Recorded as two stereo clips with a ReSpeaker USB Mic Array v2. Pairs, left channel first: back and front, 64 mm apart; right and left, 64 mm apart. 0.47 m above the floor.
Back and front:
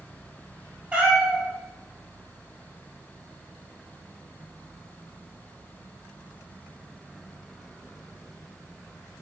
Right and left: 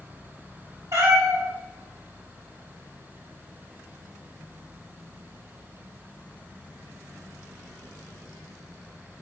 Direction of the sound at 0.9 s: 70° left.